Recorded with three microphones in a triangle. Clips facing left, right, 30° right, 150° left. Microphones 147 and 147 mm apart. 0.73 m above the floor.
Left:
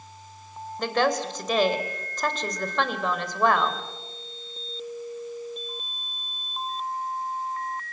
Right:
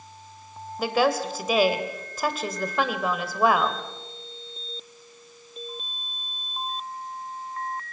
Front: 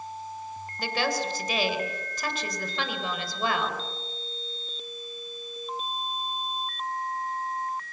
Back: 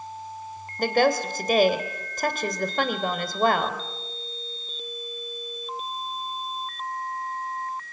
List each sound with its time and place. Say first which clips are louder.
0.8 s a woman speaking: right 1 dB, back 8 dB; 175° right, 2.5 m